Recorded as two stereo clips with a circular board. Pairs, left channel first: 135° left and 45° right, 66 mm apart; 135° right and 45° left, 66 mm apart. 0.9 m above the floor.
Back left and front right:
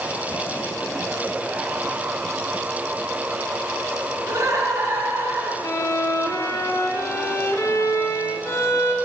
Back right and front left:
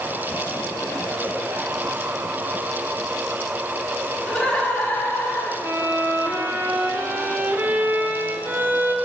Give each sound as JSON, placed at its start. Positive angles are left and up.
{"t": 4.3, "sound": "laughter", "azimuth_deg": -65, "distance_m": 1.5}
{"t": 5.6, "sound": "a violin", "azimuth_deg": 100, "distance_m": 0.6}